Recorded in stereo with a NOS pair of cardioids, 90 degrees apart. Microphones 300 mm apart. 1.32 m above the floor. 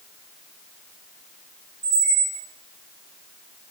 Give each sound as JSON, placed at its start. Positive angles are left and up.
{"t": 1.8, "sound": "a squeak", "azimuth_deg": -55, "distance_m": 1.9}